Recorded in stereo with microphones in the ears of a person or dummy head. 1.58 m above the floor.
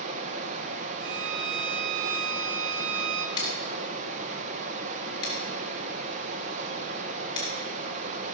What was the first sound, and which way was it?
Running water, 40° right (ahead or behind).